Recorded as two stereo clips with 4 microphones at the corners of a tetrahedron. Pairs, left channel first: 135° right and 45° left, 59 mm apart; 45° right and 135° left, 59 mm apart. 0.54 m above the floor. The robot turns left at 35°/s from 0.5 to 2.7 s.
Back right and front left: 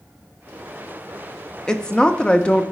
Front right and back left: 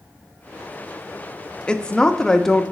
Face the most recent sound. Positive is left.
turn(degrees=-120)